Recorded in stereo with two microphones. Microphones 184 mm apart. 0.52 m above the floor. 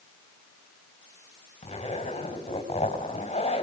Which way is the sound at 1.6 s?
35° left (ahead or behind).